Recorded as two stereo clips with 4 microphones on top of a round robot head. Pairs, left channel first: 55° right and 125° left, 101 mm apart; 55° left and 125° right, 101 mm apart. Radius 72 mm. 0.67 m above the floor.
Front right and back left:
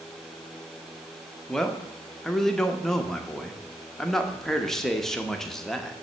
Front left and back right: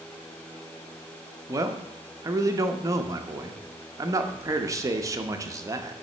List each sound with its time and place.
1.5 s a man speaking: 140° right, 0.9 m